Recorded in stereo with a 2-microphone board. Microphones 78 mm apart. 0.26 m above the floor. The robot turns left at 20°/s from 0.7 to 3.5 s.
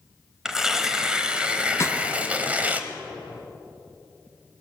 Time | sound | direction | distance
0.5 | tearing paper | 5° right (ahead or behind) | 1.0 m
1.8 | a snare drum | 35° left (ahead or behind) | 0.9 m